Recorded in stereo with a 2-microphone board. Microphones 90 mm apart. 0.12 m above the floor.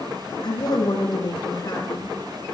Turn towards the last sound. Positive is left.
turn(degrees=60)  # may be behind; listen again after turning